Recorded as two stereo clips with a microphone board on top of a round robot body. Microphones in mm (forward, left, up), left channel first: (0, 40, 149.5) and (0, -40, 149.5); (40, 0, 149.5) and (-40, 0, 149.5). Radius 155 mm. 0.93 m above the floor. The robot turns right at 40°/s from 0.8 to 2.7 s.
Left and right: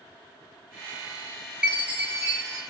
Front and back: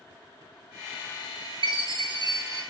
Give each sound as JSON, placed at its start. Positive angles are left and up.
{"t": 1.6, "sound": "a chime", "azimuth_deg": -170, "distance_m": 1.0}